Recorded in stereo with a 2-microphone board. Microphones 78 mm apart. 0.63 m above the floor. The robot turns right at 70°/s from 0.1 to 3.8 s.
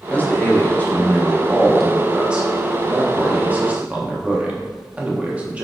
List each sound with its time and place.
0.1 s a man speaking: 20° left (ahead or behind), 0.7 m; by 5.7 s 15° right (ahead or behind), 0.7 m